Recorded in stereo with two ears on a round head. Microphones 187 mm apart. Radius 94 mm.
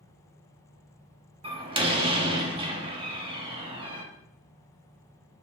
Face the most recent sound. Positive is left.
turn(degrees=-25)  # may be behind; listen again after turning